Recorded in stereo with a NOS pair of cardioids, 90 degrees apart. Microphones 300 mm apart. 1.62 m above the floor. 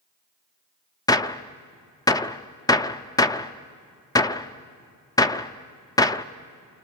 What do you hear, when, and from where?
1.1 s a gunshot: 10° left, 0.7 m